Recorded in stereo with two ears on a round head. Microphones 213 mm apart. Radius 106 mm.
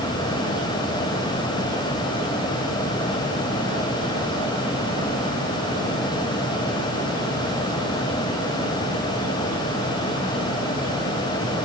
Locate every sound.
Only background noise.